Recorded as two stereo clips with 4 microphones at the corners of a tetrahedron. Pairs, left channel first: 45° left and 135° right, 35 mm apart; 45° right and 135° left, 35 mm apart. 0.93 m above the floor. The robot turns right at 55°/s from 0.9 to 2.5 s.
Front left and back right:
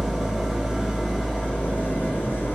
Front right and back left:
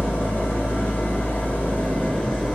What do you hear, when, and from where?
0.0 s an engine running: 50° right, 1.0 m; by 2.6 s 40° left, 1.0 m